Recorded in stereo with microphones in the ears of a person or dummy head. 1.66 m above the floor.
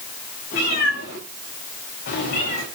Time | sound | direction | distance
0.5 | a cat meowing | 55° left (ahead or behind) | 7 m